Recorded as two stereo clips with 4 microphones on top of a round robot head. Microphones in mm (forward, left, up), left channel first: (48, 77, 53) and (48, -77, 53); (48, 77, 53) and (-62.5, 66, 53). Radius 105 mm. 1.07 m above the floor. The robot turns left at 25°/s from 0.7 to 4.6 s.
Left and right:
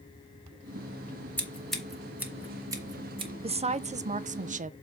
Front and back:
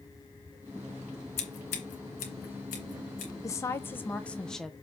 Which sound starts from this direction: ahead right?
A woman speaking, at 3.4 s.